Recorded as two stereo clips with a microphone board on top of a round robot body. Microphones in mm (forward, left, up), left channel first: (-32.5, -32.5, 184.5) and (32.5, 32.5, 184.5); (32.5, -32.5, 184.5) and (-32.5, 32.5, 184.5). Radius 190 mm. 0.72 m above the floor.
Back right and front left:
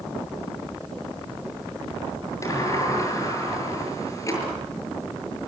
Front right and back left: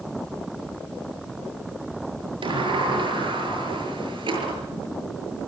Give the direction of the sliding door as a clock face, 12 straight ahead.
6 o'clock.